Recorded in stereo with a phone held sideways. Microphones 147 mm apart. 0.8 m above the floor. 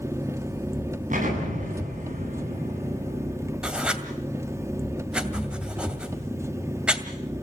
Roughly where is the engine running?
Right.